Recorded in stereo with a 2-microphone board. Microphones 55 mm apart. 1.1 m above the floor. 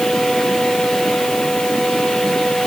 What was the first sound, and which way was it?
Only background noise.